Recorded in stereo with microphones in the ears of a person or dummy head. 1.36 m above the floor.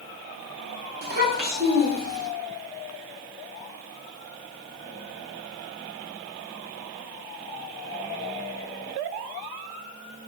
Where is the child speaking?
50° right (ahead or behind), 0.7 m.